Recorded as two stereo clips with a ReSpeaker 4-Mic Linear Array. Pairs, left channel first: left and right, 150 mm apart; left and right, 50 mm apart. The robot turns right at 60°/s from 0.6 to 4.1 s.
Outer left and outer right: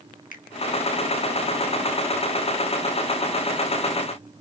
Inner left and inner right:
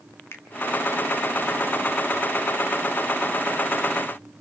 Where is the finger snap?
60° left (ahead or behind), 1.6 m.